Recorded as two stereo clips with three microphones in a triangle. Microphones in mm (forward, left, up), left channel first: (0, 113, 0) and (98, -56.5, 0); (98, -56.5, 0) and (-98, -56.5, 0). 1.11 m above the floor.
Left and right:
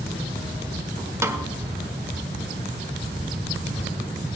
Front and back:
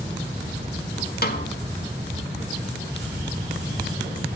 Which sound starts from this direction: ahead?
A snare drum, at 1.2 s.